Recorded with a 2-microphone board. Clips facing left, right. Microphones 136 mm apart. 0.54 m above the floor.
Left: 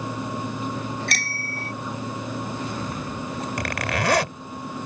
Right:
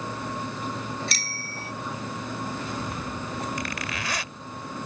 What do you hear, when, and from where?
1.1 s a bicycle bell: 60° left (ahead or behind)
3.6 s a zipper: 70° left (ahead or behind)